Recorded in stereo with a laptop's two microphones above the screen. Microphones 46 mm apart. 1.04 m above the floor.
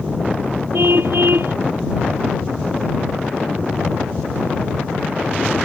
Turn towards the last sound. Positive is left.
turn(degrees=-60)  # may be behind; listen again after turning